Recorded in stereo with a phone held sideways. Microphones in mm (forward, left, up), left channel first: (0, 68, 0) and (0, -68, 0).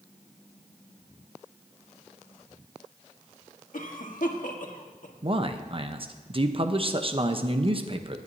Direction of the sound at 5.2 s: 40° right (ahead or behind).